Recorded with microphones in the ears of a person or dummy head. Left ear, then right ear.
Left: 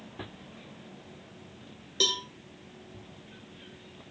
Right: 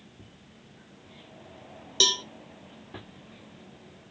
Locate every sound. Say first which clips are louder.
2.0 s a cowbell: right 4 dB; 25° right (ahead or behind), 0.8 m